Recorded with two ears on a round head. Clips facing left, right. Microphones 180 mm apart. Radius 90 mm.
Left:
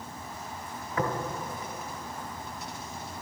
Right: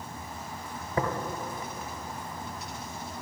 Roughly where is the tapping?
Right.